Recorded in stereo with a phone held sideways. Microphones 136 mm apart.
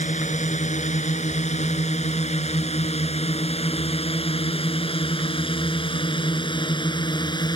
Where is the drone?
60° left (ahead or behind); by 7.6 s 30° left (ahead or behind).